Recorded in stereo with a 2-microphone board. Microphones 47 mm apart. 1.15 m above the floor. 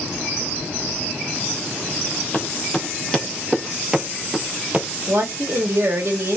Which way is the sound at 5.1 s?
70° right (ahead or behind).